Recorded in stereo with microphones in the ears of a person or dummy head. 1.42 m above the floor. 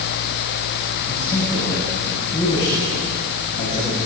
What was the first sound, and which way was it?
A man speaking, 20° left (ahead or behind).